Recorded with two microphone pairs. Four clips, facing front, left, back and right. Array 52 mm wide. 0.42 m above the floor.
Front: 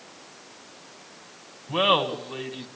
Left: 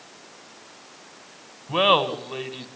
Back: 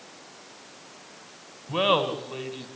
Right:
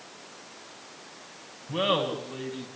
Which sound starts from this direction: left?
Laughter, at 1.7 s.